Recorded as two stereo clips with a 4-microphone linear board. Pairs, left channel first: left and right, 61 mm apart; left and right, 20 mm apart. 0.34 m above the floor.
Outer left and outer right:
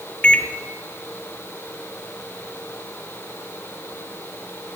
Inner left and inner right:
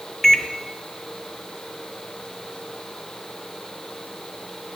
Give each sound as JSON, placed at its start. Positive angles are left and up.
{"t": 0.2, "sound": "a microwave", "side_deg": 20, "distance_m": 0.8}